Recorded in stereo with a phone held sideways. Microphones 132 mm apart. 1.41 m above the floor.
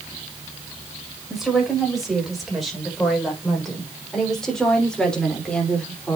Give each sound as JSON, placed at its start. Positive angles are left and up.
{"t": 1.3, "sound": "a woman speaking", "side_deg": 0, "distance_m": 7.5}